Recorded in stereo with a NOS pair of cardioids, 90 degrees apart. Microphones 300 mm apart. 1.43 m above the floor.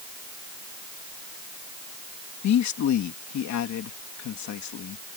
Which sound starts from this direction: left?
A man speaking, at 2.4 s.